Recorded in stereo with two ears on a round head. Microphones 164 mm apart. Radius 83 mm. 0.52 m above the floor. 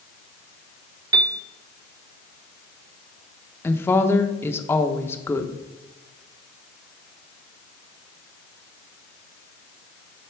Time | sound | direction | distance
1.1 | a piano | 25° right (ahead or behind) | 0.5 m
3.6 | a woman speaking | 10° left (ahead or behind) | 0.7 m